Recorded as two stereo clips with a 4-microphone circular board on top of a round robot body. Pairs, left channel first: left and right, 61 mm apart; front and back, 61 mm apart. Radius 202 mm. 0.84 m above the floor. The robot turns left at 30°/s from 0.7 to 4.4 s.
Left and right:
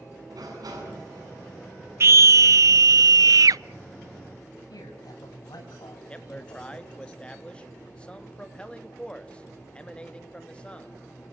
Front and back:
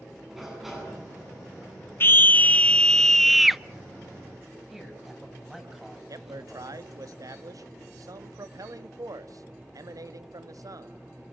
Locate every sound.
0.3 s a sliding door: 95° right, 8.5 m; by 1.3 s 110° right, 8.5 m
2.0 s a scream: 50° right, 0.5 m; by 3.6 s 95° right, 0.5 m
4.7 s a man speaking: 95° left, 6 m
6.1 s a man speaking: 160° left, 2 m